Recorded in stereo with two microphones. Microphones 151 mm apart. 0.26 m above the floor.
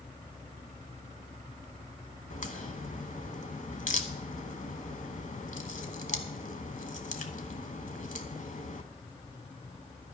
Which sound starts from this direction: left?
A crack, at 2.3 s.